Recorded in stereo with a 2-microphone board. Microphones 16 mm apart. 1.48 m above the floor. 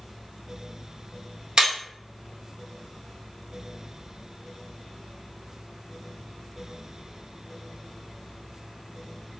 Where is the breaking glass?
55° right (ahead or behind), 1.2 m.